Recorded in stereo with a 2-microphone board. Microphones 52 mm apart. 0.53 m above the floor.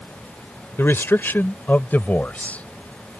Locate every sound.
0.8 s a man speaking: 50° left (ahead or behind); by 2.7 s 30° left (ahead or behind)